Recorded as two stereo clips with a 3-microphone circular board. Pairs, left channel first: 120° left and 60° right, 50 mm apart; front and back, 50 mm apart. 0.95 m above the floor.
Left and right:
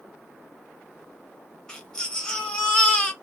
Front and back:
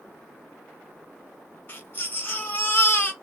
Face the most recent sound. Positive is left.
turn(degrees=45)